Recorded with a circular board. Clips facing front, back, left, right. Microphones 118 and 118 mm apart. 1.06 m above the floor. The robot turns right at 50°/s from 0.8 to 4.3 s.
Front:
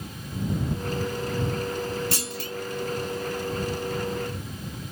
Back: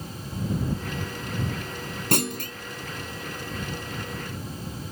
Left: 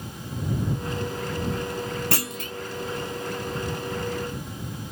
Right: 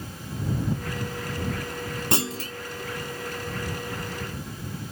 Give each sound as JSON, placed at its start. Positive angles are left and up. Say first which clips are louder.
{"t": 2.1, "sound": "a clunk", "louder": "back 5 dB, right 2 dB", "azimuth_deg": -160}